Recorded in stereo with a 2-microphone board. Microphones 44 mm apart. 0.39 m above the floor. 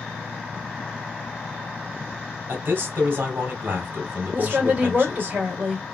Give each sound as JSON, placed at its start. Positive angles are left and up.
{"t": 2.5, "sound": "a man speaking", "side_deg": -45, "distance_m": 2.0}
{"t": 4.3, "sound": "a woman speaking", "side_deg": -35, "distance_m": 1.7}